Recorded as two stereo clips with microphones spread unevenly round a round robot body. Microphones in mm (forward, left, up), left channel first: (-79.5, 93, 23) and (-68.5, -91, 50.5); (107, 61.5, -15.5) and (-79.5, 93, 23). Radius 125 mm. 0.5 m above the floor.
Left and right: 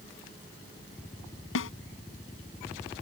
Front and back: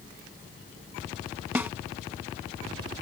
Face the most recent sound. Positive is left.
turn(degrees=90)